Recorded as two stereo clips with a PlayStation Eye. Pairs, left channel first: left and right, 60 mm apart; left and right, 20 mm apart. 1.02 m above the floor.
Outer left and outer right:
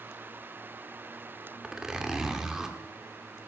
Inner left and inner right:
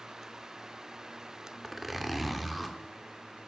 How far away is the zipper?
About 1.5 m.